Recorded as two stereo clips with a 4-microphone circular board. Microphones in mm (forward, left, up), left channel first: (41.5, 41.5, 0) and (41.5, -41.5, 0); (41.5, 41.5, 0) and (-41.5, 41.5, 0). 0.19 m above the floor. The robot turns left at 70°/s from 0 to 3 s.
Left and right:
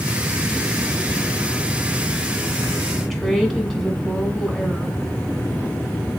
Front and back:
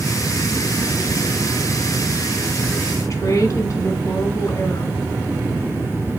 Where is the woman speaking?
5° left, 1.6 m.